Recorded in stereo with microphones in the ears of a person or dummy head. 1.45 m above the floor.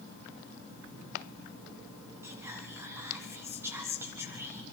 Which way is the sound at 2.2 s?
15° right (ahead or behind).